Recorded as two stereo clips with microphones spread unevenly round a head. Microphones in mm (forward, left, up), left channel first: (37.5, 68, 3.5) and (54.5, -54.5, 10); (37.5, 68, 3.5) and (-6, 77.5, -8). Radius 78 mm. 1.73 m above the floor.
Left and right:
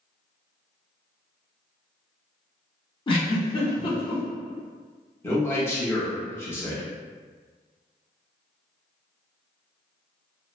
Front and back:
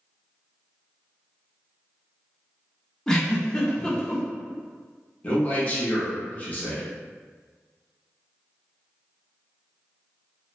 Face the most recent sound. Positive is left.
turn(degrees=30)